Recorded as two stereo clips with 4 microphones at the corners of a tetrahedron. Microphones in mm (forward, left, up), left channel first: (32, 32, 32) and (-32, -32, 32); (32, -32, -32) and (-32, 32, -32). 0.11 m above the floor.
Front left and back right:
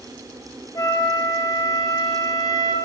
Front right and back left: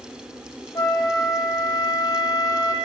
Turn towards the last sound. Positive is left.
turn(degrees=0)